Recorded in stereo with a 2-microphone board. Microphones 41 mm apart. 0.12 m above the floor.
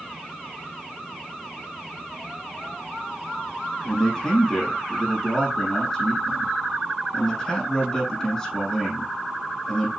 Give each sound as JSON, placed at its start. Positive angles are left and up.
{"t": 3.8, "sound": "a man speaking", "side_deg": 5, "distance_m": 5.5}